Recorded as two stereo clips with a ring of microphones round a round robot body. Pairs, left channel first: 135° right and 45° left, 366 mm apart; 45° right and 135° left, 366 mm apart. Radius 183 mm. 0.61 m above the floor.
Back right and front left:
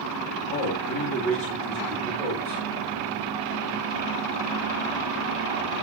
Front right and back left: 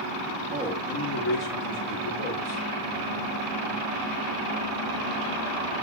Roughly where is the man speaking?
Behind.